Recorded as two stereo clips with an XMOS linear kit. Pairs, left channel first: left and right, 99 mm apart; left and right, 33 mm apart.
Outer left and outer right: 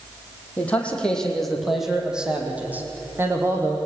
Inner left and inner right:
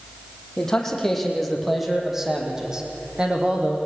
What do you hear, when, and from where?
0.6 s a man speaking: 15° left (ahead or behind), 5 m; by 3.8 s 30° right (ahead or behind), 5.5 m